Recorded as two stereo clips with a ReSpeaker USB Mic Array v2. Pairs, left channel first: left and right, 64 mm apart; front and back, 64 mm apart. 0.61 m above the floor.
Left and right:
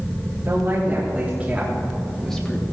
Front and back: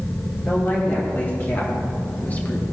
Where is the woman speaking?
50° right, 2 m; by 2.6 s 40° left, 1.2 m.